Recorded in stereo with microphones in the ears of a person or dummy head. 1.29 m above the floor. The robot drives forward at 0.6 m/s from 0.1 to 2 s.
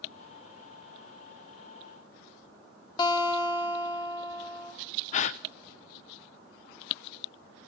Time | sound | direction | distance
3.0 | a guitar | 30° left (ahead or behind) | 2.0 m
5.1 | a gasp | 45° left (ahead or behind) | 0.5 m